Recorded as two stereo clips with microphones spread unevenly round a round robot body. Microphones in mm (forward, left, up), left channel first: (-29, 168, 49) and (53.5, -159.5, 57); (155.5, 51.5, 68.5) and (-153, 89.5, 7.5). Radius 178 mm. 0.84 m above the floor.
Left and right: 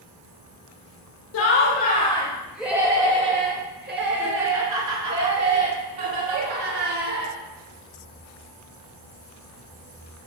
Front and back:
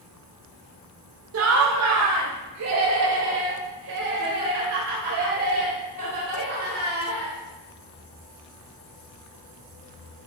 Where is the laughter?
145° left, 0.9 m; by 7.3 s 115° right, 3 m.